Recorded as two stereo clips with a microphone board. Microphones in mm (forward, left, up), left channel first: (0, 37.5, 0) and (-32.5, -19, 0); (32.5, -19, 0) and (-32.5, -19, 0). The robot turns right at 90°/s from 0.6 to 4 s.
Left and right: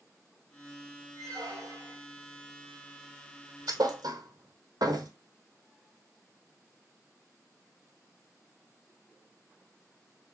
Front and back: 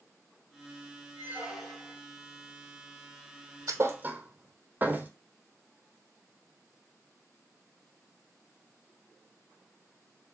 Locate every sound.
1.2 s a squeak: 130° right, 2 m; by 2.0 s 50° right, 2 m
3.7 s a thud: 145° right, 0.7 m; by 5.1 s 115° right, 0.7 m